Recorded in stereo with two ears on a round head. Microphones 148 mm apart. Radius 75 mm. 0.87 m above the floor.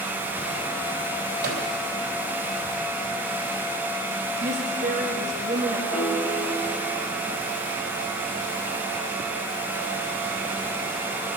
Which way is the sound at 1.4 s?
70° right (ahead or behind).